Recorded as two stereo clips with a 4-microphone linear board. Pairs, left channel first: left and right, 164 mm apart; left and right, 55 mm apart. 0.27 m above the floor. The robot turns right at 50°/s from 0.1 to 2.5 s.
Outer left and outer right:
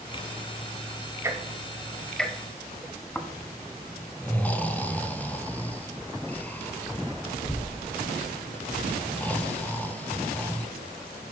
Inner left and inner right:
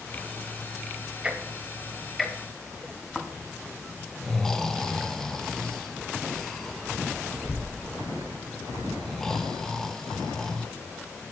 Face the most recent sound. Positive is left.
turn(degrees=10)  # may be behind; listen again after turning